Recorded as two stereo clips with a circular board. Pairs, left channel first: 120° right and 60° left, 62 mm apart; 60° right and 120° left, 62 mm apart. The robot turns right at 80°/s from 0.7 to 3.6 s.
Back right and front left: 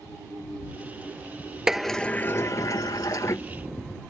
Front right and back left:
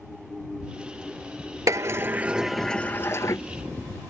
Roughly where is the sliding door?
Behind left.